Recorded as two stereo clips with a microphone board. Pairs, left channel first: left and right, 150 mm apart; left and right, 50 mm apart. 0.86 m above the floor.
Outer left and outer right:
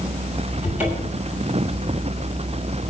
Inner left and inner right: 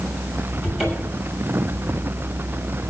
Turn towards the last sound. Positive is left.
turn(degrees=-10)  # may be behind; listen again after turning